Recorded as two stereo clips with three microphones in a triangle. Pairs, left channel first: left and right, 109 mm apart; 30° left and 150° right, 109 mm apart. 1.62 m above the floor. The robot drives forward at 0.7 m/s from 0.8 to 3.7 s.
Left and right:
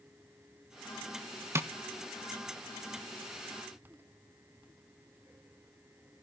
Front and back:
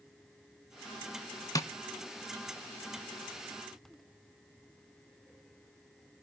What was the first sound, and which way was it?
Tapping, 25° right.